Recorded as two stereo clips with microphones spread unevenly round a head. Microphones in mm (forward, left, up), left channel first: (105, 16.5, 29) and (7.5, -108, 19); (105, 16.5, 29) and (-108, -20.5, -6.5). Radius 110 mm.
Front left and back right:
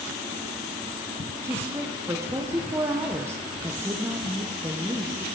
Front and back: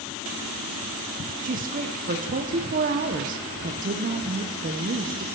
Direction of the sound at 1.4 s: 165° left.